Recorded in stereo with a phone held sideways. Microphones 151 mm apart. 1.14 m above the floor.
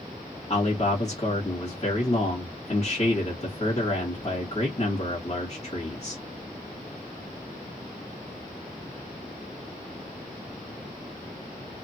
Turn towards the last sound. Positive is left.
turn(degrees=45)  # may be behind; listen again after turning